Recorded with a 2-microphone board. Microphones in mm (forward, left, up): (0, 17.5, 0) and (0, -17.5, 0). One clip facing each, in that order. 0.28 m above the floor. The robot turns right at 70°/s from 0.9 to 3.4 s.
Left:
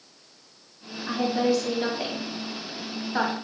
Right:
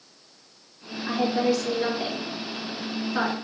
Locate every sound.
1.1 s a woman speaking: 25° right (ahead or behind), 1.5 m; by 3.3 s 40° left (ahead or behind), 1.5 m